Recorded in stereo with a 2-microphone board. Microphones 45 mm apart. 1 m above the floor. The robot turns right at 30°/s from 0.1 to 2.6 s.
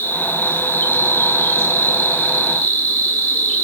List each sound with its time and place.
0.0 s an insect: 30° left, 4.5 m; by 3.6 s 105° left, 4.5 m